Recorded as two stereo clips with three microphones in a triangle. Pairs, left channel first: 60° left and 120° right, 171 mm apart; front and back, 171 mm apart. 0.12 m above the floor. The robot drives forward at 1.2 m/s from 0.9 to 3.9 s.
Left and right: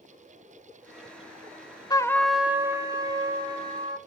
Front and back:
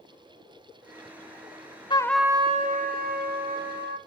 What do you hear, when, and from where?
1.9 s a trumpet: 20° left, 0.7 m; by 4.0 s 175° left, 2 m